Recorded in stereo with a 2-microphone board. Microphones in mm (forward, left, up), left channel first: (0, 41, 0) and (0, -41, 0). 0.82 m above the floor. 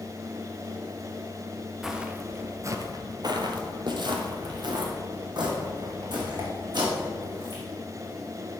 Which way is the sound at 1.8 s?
5° right (ahead or behind).